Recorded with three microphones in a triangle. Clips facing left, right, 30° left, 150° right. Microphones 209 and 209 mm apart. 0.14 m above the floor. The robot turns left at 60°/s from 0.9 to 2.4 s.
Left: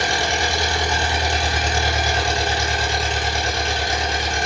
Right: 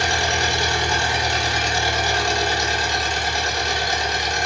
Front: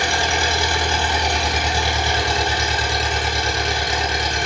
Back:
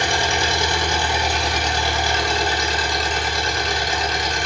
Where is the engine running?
155° left, 1.0 m; by 4.5 s 65° left, 1.0 m.